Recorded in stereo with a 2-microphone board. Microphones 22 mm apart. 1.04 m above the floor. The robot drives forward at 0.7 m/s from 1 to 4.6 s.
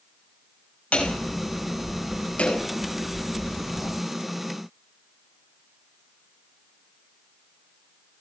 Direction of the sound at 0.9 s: 75° left (ahead or behind).